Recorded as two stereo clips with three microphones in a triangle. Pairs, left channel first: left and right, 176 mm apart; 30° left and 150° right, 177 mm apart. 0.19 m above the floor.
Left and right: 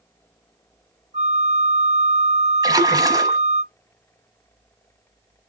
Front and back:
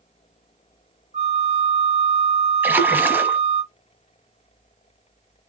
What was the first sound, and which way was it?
A flute, 115° right.